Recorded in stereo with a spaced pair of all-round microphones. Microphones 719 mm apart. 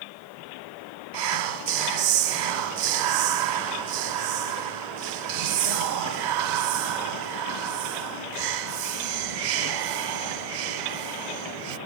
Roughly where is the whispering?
Right.